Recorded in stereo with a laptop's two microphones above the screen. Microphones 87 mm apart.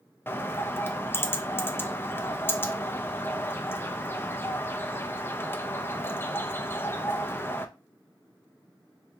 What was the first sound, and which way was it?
A bird, 25° left (ahead or behind).